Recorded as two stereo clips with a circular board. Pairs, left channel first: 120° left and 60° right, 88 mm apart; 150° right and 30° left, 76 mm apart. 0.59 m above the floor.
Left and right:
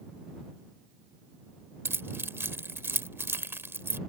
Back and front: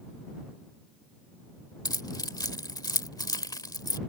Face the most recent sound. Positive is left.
turn(degrees=-125)